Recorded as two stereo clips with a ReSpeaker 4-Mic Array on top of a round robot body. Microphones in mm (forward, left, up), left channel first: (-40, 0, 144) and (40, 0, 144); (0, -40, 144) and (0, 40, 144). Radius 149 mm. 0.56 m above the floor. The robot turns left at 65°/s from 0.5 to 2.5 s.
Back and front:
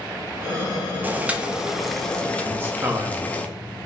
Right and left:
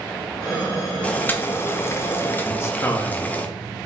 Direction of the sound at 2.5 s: 50° right.